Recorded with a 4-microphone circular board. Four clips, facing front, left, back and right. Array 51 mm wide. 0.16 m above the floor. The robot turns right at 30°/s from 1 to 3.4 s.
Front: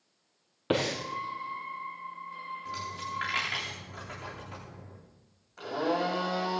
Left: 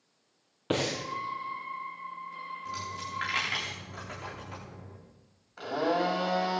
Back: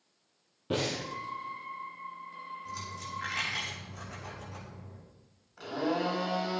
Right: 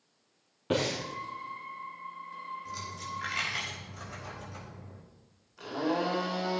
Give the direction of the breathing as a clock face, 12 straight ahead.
12 o'clock.